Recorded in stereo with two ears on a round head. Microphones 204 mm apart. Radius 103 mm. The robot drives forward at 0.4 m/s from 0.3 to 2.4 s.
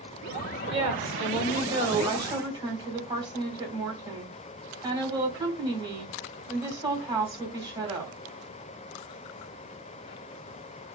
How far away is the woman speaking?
About 1.8 m.